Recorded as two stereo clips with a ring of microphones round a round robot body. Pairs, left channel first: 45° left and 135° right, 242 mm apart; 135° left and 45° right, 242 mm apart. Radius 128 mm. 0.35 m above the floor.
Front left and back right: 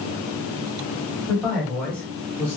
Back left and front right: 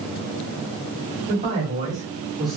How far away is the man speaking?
About 1.6 m.